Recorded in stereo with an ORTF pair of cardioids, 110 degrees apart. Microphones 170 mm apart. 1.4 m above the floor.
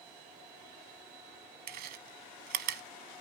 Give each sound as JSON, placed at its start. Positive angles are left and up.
{"t": 1.7, "sound": "chewing", "azimuth_deg": -70, "distance_m": 0.8}